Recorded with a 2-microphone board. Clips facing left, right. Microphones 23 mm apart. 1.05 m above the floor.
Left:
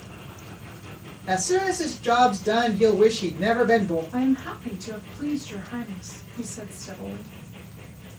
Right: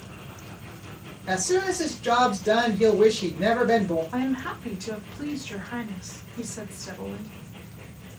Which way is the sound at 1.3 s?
5° right (ahead or behind).